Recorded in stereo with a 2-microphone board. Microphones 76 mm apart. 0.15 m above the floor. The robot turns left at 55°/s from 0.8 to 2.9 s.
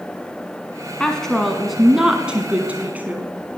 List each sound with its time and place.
1.0 s a woman speaking: 10° left (ahead or behind), 1.2 m; by 3.3 s 20° right (ahead or behind), 1.2 m